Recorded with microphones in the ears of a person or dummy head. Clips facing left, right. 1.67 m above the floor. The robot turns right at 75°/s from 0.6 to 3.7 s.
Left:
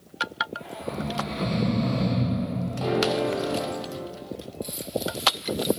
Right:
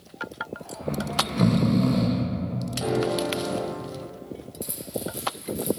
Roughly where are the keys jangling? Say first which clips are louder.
Left 3 dB; right.